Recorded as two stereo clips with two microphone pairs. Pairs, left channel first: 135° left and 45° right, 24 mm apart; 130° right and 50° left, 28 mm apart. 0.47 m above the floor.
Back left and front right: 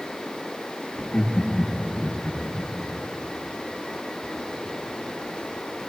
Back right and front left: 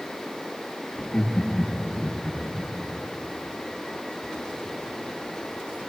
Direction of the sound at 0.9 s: 165° left.